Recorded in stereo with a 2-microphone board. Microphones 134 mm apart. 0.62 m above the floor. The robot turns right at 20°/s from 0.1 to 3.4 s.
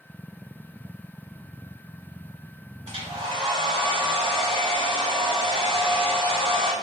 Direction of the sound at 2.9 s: 50° right (ahead or behind).